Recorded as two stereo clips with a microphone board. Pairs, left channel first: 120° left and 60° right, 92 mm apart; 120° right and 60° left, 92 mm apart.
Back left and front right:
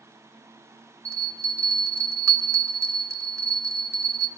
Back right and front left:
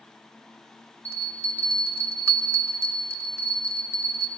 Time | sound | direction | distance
1.1 | a bell | straight ahead | 0.7 m